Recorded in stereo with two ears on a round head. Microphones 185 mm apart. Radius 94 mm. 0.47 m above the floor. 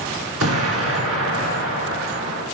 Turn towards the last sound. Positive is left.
turn(degrees=-80)